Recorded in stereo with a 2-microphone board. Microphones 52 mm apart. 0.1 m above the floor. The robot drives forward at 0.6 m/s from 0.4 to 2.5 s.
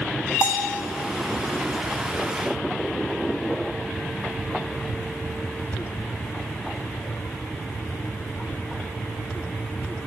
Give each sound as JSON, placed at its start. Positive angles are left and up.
{"t": 0.4, "sound": "a bell", "side_deg": 50, "distance_m": 0.9}